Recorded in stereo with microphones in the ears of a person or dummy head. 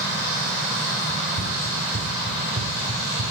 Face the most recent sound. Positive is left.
turn(degrees=-45)  # may be behind; listen again after turning